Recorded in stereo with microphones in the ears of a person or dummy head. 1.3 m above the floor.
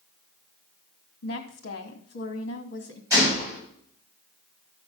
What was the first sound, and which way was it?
A woman speaking, 60° left (ahead or behind).